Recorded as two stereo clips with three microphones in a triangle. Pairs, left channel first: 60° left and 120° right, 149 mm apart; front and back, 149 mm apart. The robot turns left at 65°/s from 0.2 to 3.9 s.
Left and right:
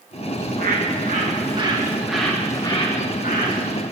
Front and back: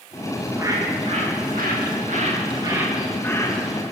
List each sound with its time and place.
0.4 s a bird: 95° right, 2 m; by 3.8 s 40° left, 2 m